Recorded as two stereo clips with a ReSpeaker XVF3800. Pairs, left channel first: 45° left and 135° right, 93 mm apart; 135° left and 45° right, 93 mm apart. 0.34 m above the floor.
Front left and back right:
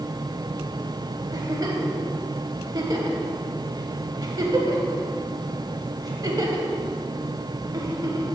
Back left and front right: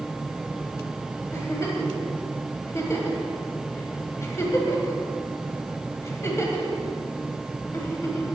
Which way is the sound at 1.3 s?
170° right.